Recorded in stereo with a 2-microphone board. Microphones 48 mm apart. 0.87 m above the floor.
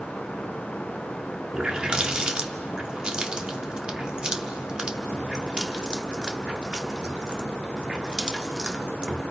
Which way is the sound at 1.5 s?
20° right (ahead or behind).